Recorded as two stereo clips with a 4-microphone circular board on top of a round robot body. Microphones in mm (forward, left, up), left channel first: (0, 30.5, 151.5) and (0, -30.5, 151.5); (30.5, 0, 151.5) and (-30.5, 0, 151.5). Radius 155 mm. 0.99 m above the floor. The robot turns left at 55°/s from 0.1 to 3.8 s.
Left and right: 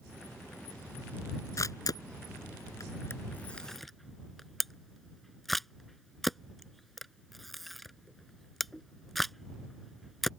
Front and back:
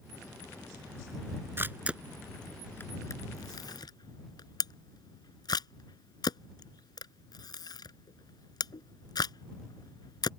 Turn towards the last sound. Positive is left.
turn(degrees=0)